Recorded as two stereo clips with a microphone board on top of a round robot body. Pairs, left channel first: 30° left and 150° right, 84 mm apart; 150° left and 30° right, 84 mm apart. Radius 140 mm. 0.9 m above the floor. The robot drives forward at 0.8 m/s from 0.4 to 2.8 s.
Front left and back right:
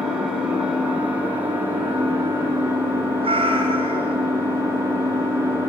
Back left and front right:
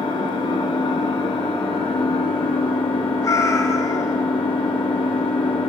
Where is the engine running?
130° left, 4 m; by 5.7 s 145° left, 5.5 m.